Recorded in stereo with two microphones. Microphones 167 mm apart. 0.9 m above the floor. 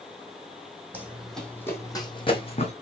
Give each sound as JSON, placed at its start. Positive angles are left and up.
{"t": 0.9, "sound": "running footsteps", "side_deg": -10, "distance_m": 1.7}